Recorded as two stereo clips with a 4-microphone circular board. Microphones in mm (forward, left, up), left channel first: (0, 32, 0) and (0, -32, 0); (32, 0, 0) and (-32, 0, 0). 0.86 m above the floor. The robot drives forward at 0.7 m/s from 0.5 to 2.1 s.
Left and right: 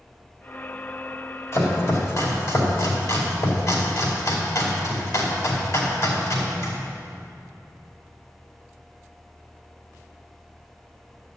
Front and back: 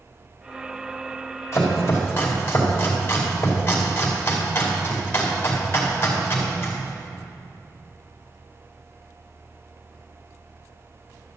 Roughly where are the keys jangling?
I don't hear keys jangling.